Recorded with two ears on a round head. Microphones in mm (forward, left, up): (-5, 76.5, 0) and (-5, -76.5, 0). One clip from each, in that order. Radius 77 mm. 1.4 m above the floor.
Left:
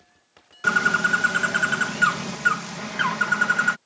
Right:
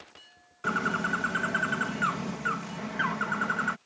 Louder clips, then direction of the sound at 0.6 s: Left 9 dB; 75° left (ahead or behind).